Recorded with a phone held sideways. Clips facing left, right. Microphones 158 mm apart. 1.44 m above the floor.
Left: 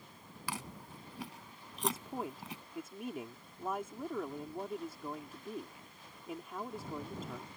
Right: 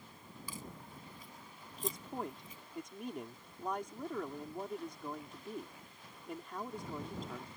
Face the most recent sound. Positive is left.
turn(degrees=5)  # may be behind; listen again after turning